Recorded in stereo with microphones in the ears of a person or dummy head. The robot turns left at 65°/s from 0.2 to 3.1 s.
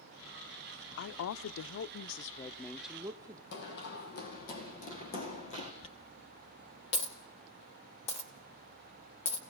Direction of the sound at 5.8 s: 35° left (ahead or behind).